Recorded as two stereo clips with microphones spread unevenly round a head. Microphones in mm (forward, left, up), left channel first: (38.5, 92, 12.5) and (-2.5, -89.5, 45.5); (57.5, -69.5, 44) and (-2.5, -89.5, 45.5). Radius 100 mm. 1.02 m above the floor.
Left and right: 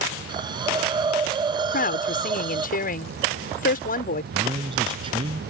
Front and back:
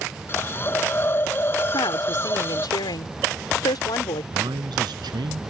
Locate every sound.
0.3 s a hiss: 35° right
1.7 s a woman speaking: 35° left
4.3 s a man speaking: 170° right